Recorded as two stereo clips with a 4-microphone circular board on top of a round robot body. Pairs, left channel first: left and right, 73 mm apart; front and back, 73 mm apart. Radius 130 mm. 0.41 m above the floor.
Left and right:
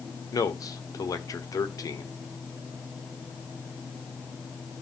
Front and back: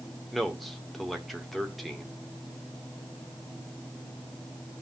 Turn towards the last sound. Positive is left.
turn(degrees=90)